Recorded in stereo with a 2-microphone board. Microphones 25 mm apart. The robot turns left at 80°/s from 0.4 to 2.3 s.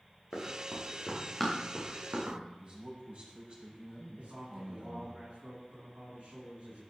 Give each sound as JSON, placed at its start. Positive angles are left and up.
{"t": 0.3, "sound": "running footsteps", "side_deg": 80, "distance_m": 7.0}
{"t": 2.6, "sound": "a man speaking", "side_deg": -45, "distance_m": 7.0}
{"t": 4.2, "sound": "a man speaking", "side_deg": -65, "distance_m": 7.5}